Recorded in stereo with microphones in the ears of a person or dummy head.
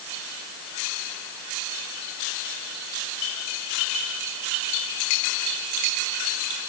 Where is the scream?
No scream in this recording.